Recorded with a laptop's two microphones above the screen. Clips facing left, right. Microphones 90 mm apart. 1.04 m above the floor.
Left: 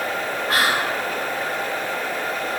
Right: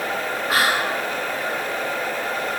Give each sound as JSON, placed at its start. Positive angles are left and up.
{"t": 0.5, "sound": "whispering", "side_deg": -5, "distance_m": 0.7}